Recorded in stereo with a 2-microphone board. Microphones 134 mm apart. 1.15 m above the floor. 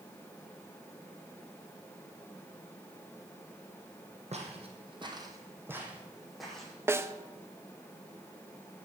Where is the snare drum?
20° right (ahead or behind), 0.6 m.